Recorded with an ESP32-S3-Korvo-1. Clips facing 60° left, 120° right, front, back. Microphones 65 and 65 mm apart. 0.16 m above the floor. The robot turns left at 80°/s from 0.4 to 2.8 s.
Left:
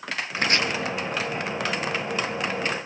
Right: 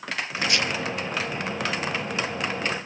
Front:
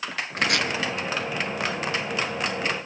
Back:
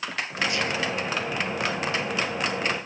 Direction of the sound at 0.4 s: 20° left.